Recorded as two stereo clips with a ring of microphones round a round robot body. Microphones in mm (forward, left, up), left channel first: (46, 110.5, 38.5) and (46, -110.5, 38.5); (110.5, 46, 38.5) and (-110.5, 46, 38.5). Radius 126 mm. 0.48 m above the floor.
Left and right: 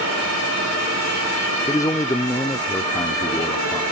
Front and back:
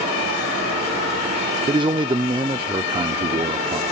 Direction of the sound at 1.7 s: 145° left.